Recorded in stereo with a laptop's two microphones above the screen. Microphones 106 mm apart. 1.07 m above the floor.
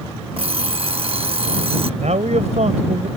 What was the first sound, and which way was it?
An alarm clock, 55° right (ahead or behind).